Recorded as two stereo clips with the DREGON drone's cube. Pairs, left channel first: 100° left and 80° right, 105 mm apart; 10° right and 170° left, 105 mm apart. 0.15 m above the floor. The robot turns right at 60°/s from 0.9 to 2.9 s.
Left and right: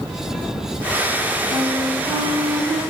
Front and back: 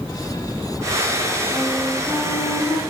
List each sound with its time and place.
1.5 s a flute: 115° right, 4 m; by 2.8 s 35° right, 4 m